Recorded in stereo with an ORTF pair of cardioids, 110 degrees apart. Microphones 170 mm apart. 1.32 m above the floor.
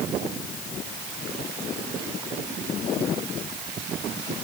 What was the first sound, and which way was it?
Only background noise.